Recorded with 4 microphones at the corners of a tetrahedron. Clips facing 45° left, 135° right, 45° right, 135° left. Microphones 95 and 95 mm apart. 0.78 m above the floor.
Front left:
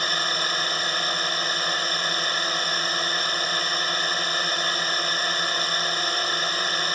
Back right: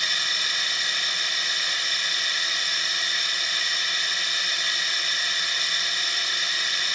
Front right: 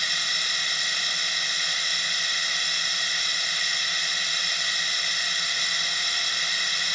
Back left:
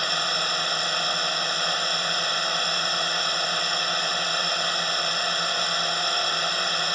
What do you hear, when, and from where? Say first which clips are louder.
0.0 s a drone: front left 5 dB, back left 6 dB; 95° left